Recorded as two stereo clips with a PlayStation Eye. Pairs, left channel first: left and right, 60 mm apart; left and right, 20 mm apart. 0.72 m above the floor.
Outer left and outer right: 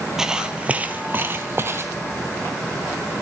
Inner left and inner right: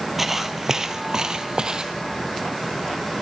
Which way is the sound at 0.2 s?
10° right (ahead or behind).